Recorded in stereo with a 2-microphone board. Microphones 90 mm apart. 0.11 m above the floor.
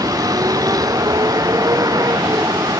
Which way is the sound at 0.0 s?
40° right (ahead or behind).